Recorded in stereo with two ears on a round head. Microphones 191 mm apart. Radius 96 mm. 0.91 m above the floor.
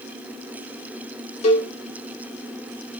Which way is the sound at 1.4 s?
30° left (ahead or behind).